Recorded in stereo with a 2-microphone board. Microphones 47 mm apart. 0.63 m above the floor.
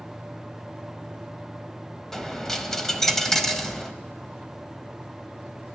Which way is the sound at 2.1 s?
10° left (ahead or behind).